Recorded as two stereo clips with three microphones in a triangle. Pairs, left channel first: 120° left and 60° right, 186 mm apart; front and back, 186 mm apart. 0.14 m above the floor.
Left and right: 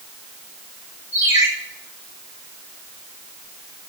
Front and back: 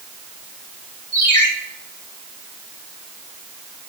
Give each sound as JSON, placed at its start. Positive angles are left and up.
{"t": 1.1, "sound": "a ringtone", "azimuth_deg": -135, "distance_m": 4.0}